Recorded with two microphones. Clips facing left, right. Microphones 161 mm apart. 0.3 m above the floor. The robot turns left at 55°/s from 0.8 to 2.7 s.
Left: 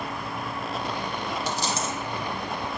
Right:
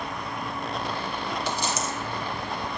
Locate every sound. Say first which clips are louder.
1.5 s a dropped coin: even; 45° left (ahead or behind), 0.9 m; by 1.9 s 20° left (ahead or behind), 0.9 m